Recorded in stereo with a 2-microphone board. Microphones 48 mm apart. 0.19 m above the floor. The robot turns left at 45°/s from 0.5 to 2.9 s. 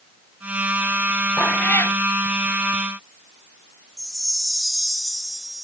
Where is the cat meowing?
35° left (ahead or behind); by 2.0 s 60° left (ahead or behind).